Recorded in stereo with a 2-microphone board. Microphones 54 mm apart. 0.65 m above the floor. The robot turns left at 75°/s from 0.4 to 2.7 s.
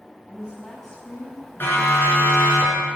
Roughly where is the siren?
Left.